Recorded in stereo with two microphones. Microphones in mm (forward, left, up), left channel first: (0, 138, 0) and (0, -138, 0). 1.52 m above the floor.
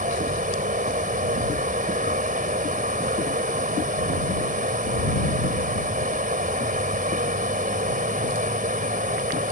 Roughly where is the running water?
Right.